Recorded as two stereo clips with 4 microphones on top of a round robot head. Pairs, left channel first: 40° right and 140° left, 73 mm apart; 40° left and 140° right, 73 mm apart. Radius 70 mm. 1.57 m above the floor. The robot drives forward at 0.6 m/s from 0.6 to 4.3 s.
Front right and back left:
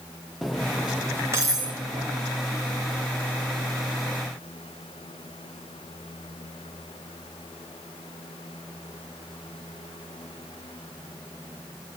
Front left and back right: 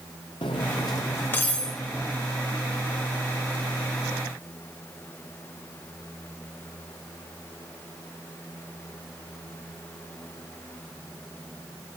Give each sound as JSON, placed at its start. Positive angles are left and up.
{"t": 0.4, "sound": "cutlery clinking", "azimuth_deg": 50, "distance_m": 1.0}